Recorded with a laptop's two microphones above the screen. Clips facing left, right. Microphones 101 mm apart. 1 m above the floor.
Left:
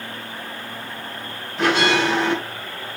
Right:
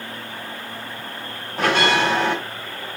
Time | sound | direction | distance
1.6 | a bell | 45° right (ahead or behind) | 5 m